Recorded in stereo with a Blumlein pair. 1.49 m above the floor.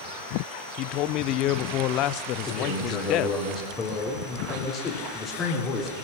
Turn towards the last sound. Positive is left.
turn(degrees=20)